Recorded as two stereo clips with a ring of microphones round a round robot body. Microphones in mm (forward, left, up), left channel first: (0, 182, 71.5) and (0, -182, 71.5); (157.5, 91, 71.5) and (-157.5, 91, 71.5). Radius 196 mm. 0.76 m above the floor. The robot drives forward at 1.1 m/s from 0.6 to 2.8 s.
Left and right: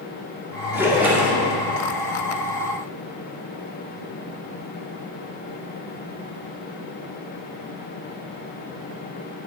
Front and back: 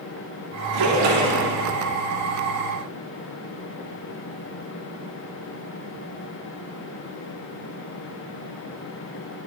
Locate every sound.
0.7 s a splash: 175° right, 2.0 m